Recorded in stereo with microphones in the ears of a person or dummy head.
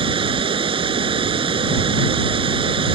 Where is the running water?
30° right (ahead or behind).